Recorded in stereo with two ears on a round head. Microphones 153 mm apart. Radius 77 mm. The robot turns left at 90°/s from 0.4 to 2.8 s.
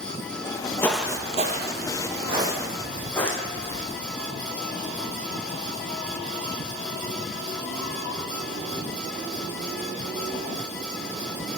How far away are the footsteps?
About 0.8 m.